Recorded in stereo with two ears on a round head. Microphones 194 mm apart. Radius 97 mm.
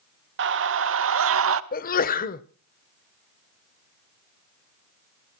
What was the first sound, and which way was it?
A scream, 55° right (ahead or behind).